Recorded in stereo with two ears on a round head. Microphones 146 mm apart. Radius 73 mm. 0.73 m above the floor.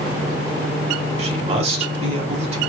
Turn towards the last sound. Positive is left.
turn(degrees=-40)  # may be behind; listen again after turning